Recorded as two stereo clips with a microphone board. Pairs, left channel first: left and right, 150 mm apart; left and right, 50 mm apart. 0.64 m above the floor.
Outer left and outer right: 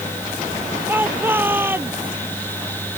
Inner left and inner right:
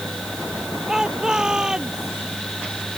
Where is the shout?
15° right (ahead or behind).